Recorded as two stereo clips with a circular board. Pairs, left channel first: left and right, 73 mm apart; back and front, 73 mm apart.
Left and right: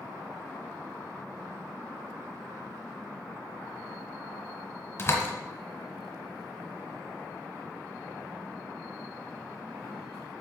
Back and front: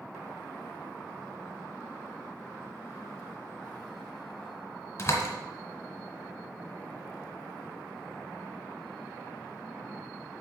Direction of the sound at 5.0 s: 135° left.